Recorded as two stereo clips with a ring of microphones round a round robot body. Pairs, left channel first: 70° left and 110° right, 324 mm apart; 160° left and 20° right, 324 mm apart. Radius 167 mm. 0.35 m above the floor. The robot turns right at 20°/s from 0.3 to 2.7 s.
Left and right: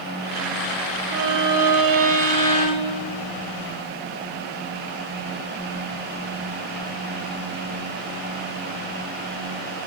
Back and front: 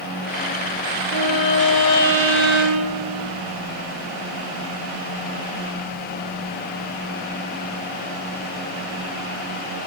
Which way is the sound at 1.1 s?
145° right.